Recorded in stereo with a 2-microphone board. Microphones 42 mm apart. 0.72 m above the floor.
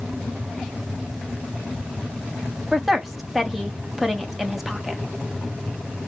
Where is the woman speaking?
5° right (ahead or behind), 1.2 m.